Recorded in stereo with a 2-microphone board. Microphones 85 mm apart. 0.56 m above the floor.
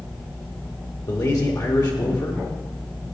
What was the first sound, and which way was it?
A man speaking, 45° left (ahead or behind).